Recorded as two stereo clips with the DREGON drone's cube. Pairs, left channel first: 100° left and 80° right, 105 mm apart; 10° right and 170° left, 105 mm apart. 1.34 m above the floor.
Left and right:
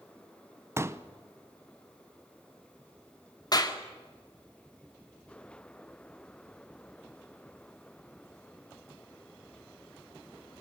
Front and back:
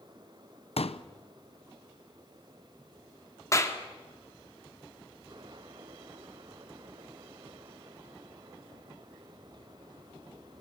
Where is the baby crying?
No baby crying in this recording.